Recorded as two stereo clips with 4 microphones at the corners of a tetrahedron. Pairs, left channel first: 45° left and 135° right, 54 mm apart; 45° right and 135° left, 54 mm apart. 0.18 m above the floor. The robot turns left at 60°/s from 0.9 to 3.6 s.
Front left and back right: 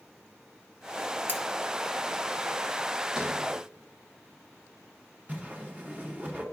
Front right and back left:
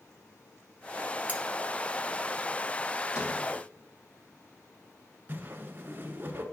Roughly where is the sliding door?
Ahead right.